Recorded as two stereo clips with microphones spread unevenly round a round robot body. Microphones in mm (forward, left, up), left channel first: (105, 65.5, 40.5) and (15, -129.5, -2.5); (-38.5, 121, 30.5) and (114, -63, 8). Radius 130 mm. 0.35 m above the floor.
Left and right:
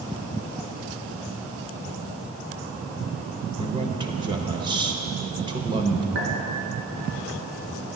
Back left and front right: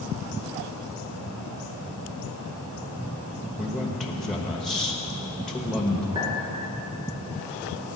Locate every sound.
3.6 s a man speaking: 135° right, 1.0 m
6.2 s a clink: 125° right, 2.5 m